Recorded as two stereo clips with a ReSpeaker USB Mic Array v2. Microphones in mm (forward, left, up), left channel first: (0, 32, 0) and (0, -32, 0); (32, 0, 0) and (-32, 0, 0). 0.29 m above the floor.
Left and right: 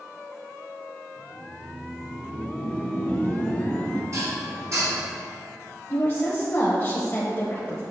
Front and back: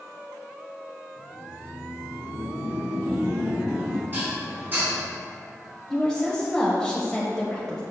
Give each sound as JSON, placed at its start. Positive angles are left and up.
{"t": 1.2, "sound": "laughter", "azimuth_deg": 130, "distance_m": 1.3}
{"t": 4.1, "sound": "dishes clattering", "azimuth_deg": -125, "distance_m": 2.0}
{"t": 5.9, "sound": "a woman speaking", "azimuth_deg": 70, "distance_m": 1.0}